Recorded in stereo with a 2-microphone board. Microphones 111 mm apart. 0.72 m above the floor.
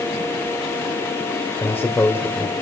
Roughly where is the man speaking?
Left.